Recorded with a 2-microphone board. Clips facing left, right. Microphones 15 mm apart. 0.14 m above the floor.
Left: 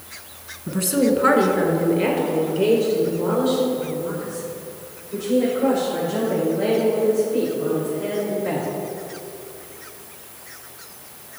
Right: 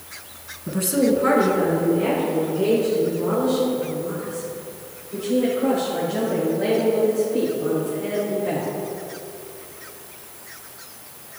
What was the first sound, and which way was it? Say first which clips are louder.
A woman speaking: even; centre (ahead or behind).